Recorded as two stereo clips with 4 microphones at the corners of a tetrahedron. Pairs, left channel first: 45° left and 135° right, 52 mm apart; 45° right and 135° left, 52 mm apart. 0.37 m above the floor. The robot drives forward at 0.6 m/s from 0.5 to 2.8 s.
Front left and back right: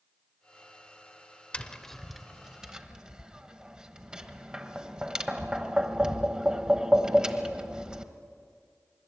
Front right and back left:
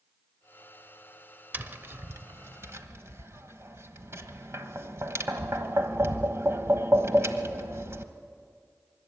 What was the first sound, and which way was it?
Tapping, 105° left.